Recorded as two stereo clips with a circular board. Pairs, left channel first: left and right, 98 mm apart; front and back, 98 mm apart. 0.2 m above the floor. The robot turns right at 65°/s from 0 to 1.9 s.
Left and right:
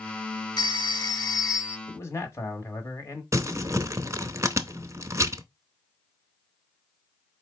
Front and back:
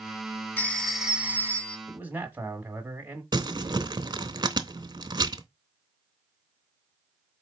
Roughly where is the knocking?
I don't hear knocking.